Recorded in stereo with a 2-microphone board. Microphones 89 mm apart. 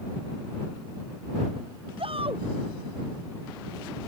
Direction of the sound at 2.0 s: 75° right (ahead or behind).